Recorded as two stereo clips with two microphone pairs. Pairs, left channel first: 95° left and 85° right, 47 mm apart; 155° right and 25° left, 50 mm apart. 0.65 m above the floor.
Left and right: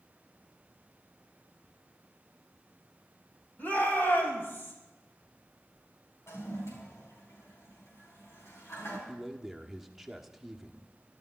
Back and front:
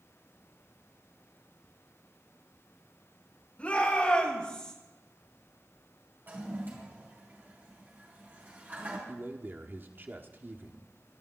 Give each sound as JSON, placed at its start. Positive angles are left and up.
{"t": 3.6, "sound": "a shout", "azimuth_deg": 140, "distance_m": 5.0}
{"t": 6.3, "sound": "a toilet flushing", "azimuth_deg": 75, "distance_m": 4.5}
{"t": 9.1, "sound": "a man speaking", "azimuth_deg": -5, "distance_m": 1.4}